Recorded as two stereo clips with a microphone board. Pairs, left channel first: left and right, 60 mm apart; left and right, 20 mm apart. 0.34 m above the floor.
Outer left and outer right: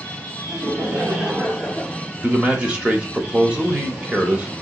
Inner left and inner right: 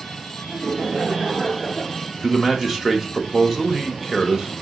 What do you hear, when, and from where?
0.5 s laughter: 50° right (ahead or behind), 1.9 m; by 2.0 s 30° left (ahead or behind), 1.5 m
2.2 s a man speaking: 20° right (ahead or behind), 0.9 m